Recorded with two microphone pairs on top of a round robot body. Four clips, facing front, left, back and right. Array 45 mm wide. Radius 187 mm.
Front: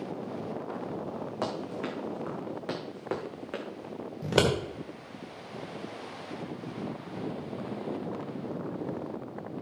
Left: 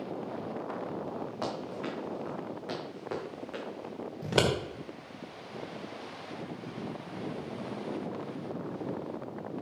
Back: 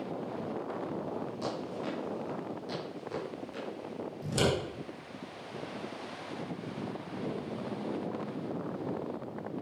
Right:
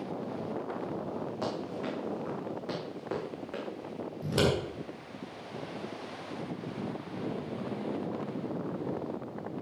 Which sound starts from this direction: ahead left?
Scissors, at 4.2 s.